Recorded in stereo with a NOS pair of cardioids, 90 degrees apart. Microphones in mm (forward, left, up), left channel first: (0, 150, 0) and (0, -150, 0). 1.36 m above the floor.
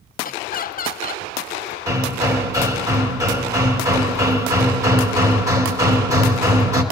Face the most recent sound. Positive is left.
turn(degrees=-10)